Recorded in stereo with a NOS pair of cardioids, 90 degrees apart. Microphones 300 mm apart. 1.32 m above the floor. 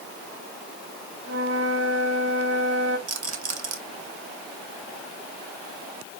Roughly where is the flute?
Ahead right.